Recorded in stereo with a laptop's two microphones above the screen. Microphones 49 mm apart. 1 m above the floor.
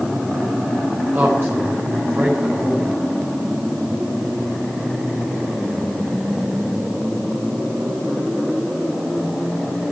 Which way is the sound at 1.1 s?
55° right (ahead or behind).